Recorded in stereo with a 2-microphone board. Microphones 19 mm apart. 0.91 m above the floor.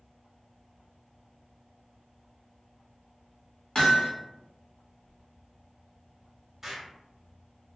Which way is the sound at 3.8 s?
35° left (ahead or behind).